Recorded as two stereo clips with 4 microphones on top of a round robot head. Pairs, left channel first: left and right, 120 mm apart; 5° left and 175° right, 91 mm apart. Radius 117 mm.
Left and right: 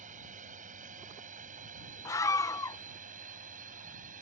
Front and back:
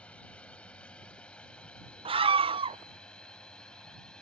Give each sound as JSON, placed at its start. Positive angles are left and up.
{"t": 0.0, "sound": "a drone", "azimuth_deg": -75}
{"t": 2.0, "sound": "a scream", "azimuth_deg": 155}